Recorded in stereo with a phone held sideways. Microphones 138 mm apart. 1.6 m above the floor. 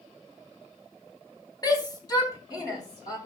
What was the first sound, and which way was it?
A shout, 25° left (ahead or behind).